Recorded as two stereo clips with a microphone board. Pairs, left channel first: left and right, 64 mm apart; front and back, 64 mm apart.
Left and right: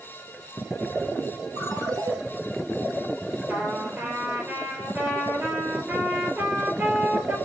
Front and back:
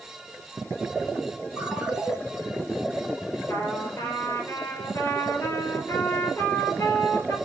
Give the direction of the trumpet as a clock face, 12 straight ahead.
1 o'clock.